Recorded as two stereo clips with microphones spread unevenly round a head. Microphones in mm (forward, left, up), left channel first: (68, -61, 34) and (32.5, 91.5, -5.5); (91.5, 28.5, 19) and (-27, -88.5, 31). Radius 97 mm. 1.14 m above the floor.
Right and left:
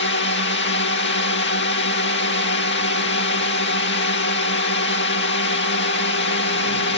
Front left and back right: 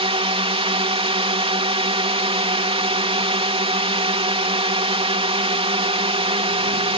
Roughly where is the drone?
Right.